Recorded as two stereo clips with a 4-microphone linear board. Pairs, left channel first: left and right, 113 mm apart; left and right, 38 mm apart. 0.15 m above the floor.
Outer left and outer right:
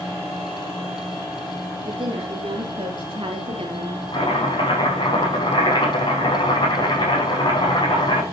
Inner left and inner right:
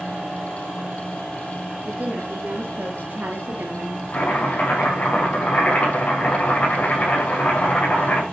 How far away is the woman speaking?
About 3.5 m.